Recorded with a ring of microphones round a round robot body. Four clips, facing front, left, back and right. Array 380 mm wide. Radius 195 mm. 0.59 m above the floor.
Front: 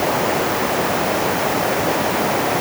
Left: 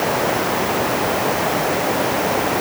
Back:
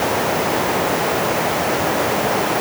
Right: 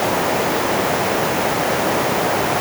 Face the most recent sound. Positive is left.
No sound to turn to.